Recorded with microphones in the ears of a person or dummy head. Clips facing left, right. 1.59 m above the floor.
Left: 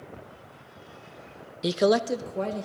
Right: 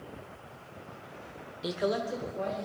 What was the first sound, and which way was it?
A man speaking, 30° left (ahead or behind).